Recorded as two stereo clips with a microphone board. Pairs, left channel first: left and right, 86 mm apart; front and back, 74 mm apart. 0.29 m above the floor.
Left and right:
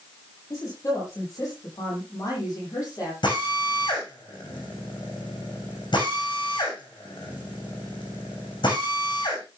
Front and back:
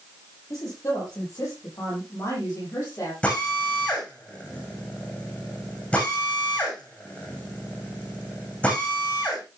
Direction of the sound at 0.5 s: 45° left.